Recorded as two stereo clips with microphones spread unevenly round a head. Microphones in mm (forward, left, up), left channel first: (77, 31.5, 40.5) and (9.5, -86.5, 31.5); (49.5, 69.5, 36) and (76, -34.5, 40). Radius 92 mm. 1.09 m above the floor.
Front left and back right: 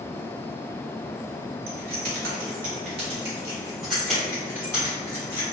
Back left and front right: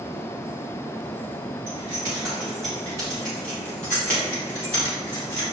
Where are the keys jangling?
130° right, 1.0 m; by 5.4 s 130° left, 1.7 m.